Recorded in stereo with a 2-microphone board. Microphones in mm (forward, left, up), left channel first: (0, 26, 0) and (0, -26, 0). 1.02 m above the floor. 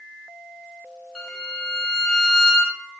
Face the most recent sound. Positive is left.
turn(degrees=15)  # may be behind; listen again after turning